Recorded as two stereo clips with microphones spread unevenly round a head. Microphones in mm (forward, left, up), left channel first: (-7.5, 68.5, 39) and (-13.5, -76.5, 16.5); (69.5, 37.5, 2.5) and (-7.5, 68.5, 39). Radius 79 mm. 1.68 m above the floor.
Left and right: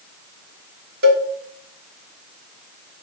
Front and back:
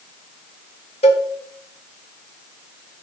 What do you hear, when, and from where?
1.0 s a cowbell: 65° right, 1.1 m